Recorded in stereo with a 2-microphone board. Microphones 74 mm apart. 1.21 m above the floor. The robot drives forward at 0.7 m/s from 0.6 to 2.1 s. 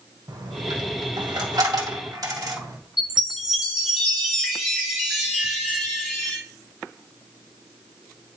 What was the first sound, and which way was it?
A dropped coin, 70° right (ahead or behind).